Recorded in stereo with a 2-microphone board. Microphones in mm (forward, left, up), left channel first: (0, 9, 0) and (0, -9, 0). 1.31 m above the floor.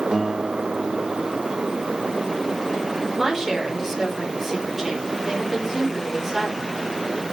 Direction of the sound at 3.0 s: 15° right (ahead or behind).